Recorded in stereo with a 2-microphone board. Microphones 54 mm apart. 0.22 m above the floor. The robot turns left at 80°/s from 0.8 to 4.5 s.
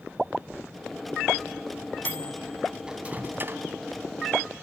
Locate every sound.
2.0 s a microwave: 30° left (ahead or behind), 1.1 m; by 3.6 s 45° right (ahead or behind), 1.1 m